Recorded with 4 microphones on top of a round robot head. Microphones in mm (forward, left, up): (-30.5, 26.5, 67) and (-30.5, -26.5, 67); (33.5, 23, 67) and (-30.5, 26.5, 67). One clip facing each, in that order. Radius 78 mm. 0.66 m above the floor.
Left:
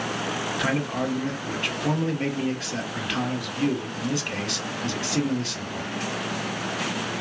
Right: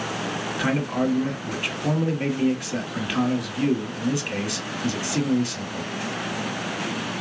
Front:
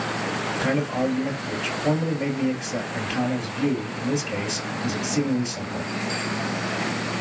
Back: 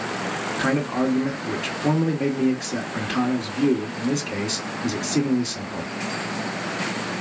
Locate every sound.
0.6 s a man speaking: 175° right, 1.7 m